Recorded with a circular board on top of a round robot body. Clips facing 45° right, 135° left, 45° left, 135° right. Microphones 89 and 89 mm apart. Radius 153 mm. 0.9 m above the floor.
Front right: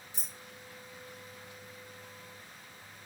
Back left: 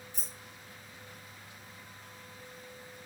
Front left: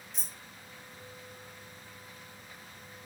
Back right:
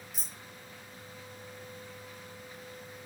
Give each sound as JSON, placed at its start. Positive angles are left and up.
{"t": 0.1, "sound": "keys jangling", "azimuth_deg": -50, "distance_m": 0.5}